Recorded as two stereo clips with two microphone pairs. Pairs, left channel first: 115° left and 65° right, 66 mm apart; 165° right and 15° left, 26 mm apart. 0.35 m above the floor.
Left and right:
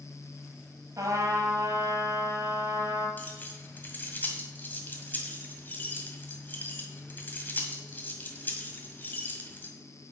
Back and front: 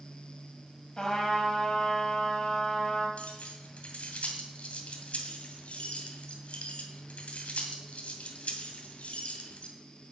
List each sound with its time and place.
1.0 s a trumpet: 100° right, 2 m
3.2 s keys jangling: 170° left, 1.7 m